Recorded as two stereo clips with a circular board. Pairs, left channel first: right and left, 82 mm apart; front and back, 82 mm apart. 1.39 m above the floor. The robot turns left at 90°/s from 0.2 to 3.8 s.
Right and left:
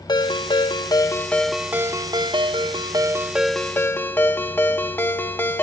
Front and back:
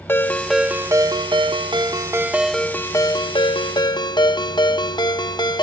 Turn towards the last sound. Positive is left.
turn(degrees=-25)